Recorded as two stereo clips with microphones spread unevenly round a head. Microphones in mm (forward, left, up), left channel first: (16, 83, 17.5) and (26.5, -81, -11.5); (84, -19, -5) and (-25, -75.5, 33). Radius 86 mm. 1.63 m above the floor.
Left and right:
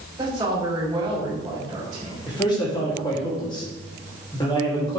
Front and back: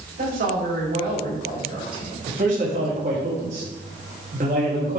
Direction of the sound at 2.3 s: 160° left.